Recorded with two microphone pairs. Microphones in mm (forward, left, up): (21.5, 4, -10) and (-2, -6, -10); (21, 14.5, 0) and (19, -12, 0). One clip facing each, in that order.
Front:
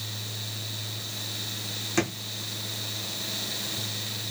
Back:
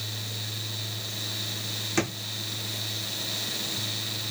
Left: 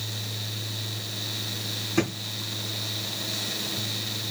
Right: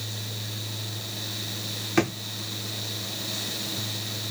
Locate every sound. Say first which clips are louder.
2.0 s a drawer: front 1 dB, right 2 dB; 65° right, 1.8 m